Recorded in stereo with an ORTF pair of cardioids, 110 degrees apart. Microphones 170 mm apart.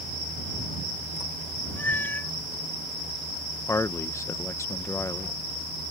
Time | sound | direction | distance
1.8 | a cat meowing | 10° left | ?
3.7 | a man speaking | 15° left | ?